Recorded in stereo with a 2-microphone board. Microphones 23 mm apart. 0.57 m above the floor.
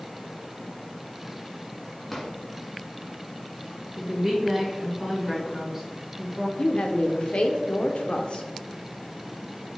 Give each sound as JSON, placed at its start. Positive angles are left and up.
{"t": 2.1, "sound": "a drawer", "side_deg": 5, "distance_m": 1.5}
{"t": 4.0, "sound": "a woman speaking", "side_deg": -20, "distance_m": 2.5}
{"t": 6.6, "sound": "a woman speaking", "side_deg": 60, "distance_m": 1.1}